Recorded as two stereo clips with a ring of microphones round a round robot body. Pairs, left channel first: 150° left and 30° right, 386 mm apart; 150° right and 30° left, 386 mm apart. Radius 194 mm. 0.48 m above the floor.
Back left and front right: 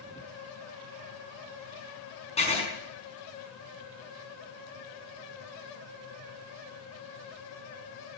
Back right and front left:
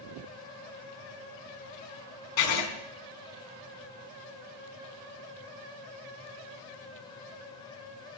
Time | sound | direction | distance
2.4 | writing | 135° right | 4.5 m